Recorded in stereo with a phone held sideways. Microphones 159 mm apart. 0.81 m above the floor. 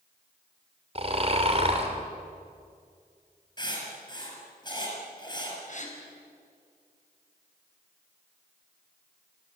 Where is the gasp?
50° left (ahead or behind), 4.5 m.